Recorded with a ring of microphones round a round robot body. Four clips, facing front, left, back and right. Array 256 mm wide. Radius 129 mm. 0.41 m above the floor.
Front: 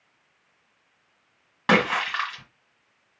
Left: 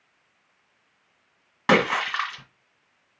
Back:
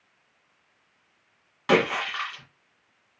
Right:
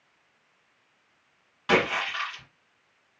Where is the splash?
50° left, 1.9 m.